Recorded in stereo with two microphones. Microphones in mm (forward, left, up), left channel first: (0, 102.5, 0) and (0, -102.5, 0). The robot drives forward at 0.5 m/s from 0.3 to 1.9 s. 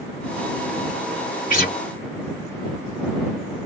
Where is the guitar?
40° left (ahead or behind), 2 m.